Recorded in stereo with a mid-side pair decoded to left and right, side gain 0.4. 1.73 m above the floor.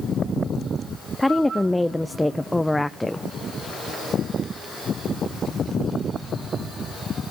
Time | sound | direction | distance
1.2 | a woman speaking | 5° left | 0.7 m